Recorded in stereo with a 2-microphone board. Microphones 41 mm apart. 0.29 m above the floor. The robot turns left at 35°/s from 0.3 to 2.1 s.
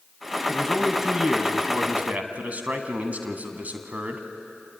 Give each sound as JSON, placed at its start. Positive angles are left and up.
{"t": 0.5, "sound": "a man speaking", "azimuth_deg": 10, "distance_m": 2.0}